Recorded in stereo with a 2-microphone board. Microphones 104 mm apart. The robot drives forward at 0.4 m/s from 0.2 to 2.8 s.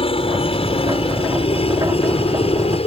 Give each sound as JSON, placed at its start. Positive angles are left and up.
{"t": 0.0, "sound": "a helicopter", "side_deg": 60}